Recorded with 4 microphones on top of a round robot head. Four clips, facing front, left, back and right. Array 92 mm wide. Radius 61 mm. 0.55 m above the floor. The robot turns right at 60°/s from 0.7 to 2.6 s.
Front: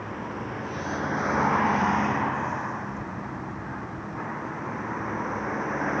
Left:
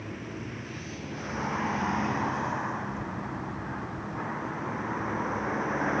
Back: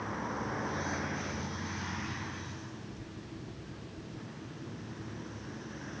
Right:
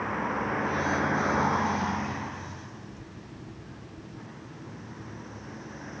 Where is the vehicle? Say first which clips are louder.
Right 9 dB, front 3 dB; 75° right; by 6.0 s 40° left.